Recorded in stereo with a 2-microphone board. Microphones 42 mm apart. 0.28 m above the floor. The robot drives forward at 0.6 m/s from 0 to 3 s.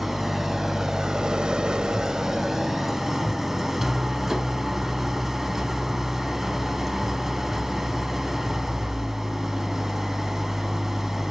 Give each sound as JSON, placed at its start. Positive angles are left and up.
{"t": 0.0, "sound": "an engine running", "side_deg": -5, "distance_m": 1.0}